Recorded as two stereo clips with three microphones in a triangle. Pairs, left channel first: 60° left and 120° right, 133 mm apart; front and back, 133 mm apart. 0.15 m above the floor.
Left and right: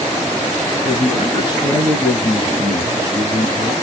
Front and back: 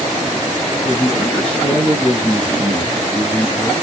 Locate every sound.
0.8 s a man speaking: 75° left, 1.9 m